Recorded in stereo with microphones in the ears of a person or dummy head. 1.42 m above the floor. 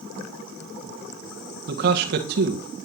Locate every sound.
1.7 s a man speaking: 60° right (ahead or behind), 1.4 m